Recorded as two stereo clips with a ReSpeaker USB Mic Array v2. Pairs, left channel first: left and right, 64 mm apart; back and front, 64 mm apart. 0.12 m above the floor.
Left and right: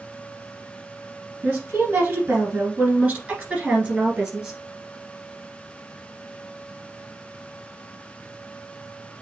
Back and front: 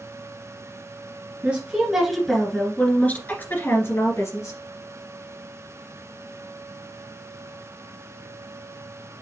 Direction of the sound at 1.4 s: 45° right.